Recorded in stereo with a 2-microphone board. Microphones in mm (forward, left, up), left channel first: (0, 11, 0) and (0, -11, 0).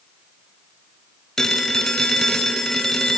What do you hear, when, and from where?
1.4 s a phone ringing: 30° left (ahead or behind), 1.4 m